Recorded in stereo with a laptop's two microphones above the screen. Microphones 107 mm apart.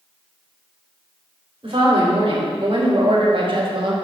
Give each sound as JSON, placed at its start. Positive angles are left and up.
{"t": 1.6, "sound": "a woman speaking", "side_deg": -55, "distance_m": 2.5}